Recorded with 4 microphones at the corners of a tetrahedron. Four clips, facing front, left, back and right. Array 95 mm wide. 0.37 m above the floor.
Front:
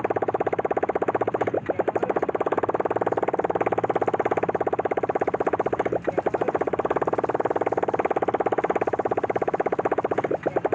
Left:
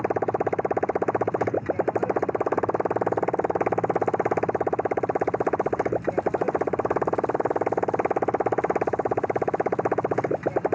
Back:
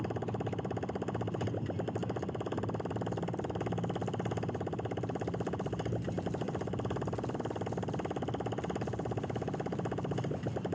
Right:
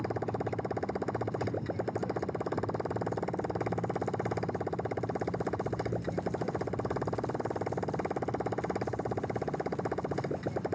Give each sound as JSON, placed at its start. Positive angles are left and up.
{"t": 0.0, "sound": "a motorcycle", "azimuth_deg": 40}